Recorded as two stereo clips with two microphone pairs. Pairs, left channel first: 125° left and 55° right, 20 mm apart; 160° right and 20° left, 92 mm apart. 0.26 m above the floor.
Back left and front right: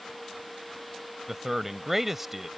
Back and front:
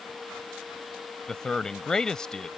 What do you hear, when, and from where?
1.3 s a man speaking: 90° right